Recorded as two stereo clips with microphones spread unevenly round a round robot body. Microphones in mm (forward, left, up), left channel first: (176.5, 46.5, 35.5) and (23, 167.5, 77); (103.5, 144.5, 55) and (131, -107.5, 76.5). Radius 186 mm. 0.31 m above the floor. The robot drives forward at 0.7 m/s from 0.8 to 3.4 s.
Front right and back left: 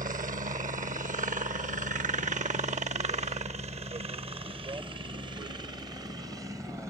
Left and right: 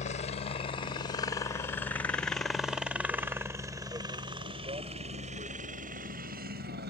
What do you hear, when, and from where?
0.0 s a helicopter: 115° left; by 6.9 s 135° right